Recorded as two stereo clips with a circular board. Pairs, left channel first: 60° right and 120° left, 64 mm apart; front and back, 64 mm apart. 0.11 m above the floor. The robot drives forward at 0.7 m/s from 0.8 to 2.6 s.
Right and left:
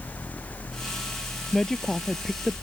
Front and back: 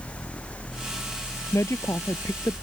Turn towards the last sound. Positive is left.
turn(degrees=35)